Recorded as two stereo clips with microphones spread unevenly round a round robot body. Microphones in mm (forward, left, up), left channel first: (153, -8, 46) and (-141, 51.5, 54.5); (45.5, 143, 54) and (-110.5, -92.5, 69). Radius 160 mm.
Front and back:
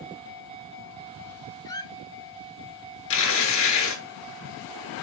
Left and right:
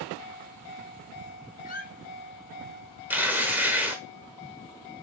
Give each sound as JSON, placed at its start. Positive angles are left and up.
{"t": 1.6, "sound": "a squeak", "azimuth_deg": 55, "distance_m": 0.8}
{"t": 3.1, "sound": "tearing paper", "azimuth_deg": -40, "distance_m": 1.1}